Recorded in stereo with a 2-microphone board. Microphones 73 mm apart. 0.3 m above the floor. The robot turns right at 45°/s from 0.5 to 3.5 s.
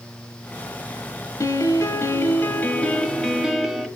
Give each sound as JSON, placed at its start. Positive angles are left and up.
{"t": 1.4, "sound": "a piano", "azimuth_deg": 90, "distance_m": 0.8}